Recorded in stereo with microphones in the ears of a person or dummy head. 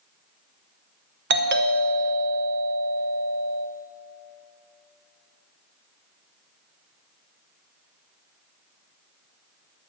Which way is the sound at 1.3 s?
50° right (ahead or behind).